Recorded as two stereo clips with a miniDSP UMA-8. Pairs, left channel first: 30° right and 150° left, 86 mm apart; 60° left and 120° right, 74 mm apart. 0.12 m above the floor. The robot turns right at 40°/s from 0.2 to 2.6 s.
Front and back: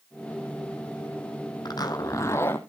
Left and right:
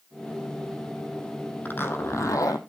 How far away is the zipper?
About 1.3 m.